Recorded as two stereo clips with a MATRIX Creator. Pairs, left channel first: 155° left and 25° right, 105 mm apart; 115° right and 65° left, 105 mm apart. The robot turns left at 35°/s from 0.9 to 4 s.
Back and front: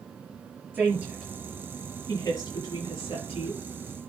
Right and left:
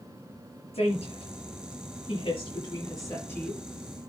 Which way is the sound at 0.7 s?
95° right.